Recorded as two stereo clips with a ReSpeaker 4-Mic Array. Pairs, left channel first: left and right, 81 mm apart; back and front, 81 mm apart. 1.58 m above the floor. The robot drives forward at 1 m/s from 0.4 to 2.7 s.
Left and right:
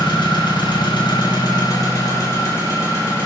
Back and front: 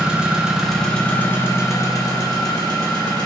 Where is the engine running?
80° left, 1.5 m; by 3.3 s 145° left, 2.5 m.